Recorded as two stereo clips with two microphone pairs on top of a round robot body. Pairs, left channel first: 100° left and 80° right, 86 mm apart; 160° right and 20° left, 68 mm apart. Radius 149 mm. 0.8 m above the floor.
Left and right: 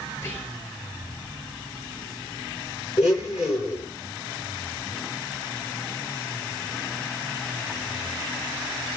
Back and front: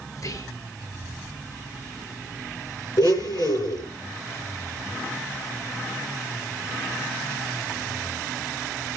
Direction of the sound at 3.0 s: 160° right.